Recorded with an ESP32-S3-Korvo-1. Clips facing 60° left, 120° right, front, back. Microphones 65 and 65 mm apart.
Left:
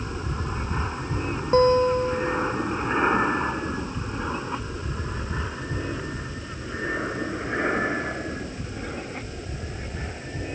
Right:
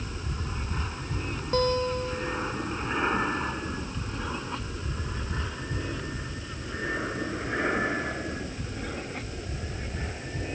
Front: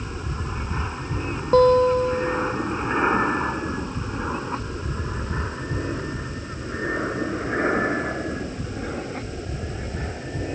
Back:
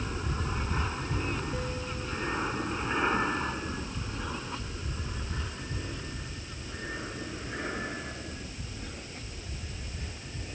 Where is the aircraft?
70° left; by 10.6 s 25° right.